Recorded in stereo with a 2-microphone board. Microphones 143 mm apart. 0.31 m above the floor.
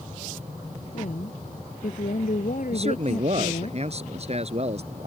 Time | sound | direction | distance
0.9 | a woman speaking | 65° left (ahead or behind) | ?
2.7 | a man speaking | 50° right (ahead or behind) | ?